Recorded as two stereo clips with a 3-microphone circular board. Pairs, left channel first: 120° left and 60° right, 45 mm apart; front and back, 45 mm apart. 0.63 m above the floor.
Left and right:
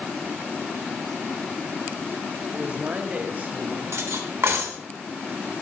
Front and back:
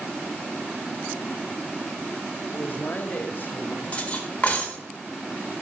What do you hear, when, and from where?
2.5 s a man speaking: 20° right, 1.3 m; by 3.8 s 30° right, 1.8 m
3.9 s cutlery clinking: 60° right, 1.4 m